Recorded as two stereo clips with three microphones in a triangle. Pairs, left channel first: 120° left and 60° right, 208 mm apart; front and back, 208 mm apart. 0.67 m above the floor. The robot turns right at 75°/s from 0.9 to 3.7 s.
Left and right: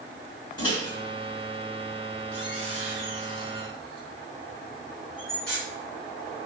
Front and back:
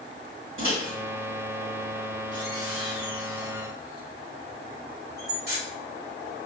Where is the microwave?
175° right, 1.6 m; by 5.6 s 35° left, 1.6 m.